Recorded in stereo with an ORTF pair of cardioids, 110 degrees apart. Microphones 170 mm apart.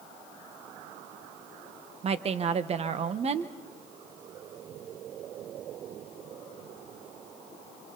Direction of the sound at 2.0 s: 40° right.